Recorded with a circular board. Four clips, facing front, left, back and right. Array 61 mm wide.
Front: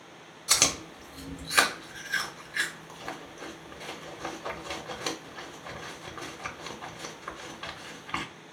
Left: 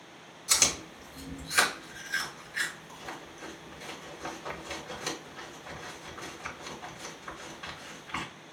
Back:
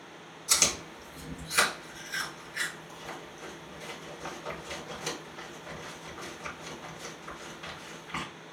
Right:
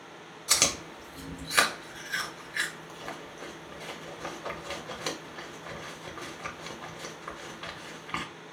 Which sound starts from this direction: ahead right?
Chewing, at 0.5 s.